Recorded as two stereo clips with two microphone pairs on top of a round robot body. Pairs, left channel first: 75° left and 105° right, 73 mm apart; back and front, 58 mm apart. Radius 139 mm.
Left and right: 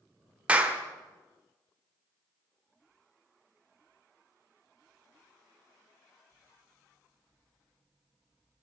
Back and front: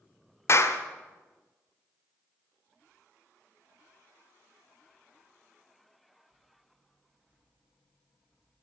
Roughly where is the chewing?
No chewing in this recording.